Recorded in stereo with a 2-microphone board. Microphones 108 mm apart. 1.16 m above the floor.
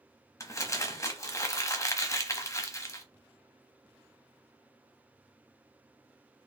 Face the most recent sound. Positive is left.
turn(degrees=25)  # may be behind; listen again after turning